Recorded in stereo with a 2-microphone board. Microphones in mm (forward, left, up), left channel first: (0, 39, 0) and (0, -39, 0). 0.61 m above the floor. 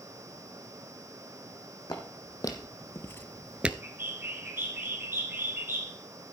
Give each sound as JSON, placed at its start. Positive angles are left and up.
{"t": 1.9, "sound": "footsteps", "side_deg": 55, "distance_m": 2.0}
{"t": 3.8, "sound": "a bird", "side_deg": -30, "distance_m": 2.5}